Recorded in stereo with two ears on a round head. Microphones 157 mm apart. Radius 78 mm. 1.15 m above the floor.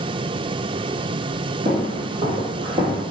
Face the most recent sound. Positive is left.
turn(degrees=-20)  # may be behind; listen again after turning